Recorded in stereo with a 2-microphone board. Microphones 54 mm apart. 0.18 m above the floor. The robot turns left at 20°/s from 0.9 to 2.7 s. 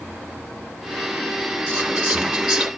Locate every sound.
1.7 s whispering: 25° right (ahead or behind), 2.5 m; by 2.7 s 10° right (ahead or behind), 2.5 m